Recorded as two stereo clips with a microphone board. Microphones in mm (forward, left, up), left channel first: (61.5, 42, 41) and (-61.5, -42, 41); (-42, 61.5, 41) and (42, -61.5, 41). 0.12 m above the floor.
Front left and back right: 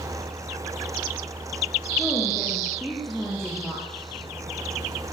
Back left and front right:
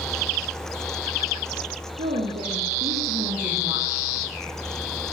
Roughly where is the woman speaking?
Ahead right.